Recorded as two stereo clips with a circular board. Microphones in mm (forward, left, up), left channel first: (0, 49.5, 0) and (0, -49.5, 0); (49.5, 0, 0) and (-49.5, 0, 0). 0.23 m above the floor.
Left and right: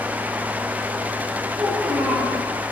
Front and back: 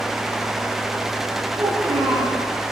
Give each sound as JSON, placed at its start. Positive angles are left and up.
{"t": 1.6, "sound": "a child speaking", "azimuth_deg": -165, "distance_m": 4.0}